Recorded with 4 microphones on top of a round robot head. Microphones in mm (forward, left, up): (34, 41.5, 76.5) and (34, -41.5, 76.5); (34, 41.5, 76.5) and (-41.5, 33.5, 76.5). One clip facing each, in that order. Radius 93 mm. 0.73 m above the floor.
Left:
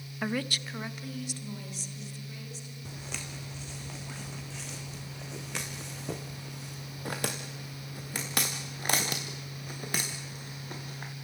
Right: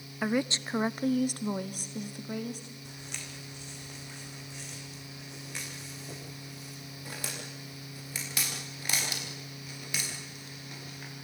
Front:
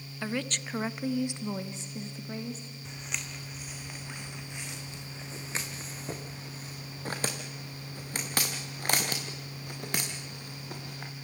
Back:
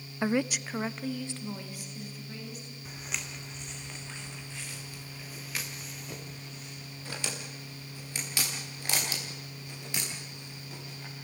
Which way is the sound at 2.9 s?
100° left.